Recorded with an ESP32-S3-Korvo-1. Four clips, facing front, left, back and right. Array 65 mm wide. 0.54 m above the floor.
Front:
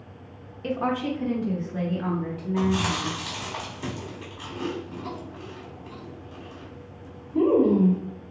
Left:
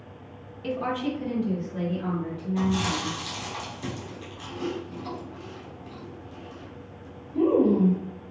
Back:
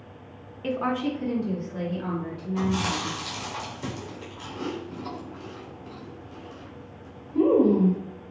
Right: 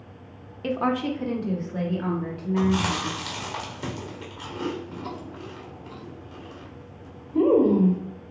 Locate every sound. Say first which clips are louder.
0.6 s a woman speaking: right 3 dB, even; 105° right, 0.9 m; by 3.2 s 70° right, 3.5 m
2.6 s chewing: right 3 dB, front 2 dB; 80° right, 2.0 m